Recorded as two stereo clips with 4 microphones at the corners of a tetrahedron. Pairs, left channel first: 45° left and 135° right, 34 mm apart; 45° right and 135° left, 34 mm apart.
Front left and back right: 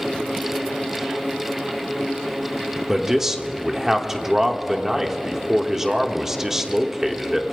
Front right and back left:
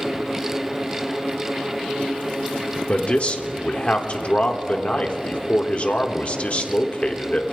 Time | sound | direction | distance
2.9 | a man speaking | 70° right | 1.1 m